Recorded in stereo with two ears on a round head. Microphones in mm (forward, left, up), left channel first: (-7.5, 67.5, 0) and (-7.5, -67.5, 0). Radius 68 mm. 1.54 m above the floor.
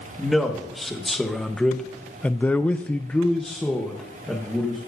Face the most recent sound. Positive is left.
turn(degrees=5)  # may be behind; listen again after turning